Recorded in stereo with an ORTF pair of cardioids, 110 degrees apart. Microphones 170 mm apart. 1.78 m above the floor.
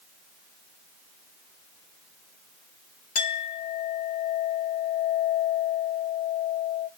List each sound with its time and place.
3.1 s a clink: 60° left, 3 m